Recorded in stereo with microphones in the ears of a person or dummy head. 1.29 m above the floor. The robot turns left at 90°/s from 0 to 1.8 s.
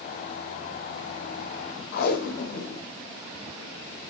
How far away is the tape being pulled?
About 1.6 m.